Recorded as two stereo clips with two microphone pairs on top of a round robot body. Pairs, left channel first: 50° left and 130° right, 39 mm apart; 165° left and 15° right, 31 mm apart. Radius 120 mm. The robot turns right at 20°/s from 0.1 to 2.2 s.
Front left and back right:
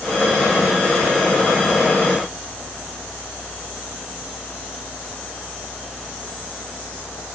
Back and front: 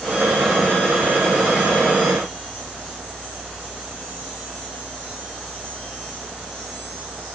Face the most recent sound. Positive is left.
No sound to turn to.